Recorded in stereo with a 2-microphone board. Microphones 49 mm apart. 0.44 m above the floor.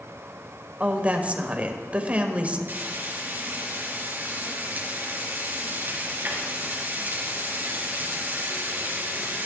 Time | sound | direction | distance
0.8 | a woman speaking | 30° right (ahead or behind) | 1.4 m
2.7 | frying | 40° right (ahead or behind) | 3 m